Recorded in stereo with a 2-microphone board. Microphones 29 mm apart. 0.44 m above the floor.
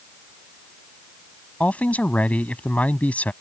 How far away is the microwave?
No microwave in this recording.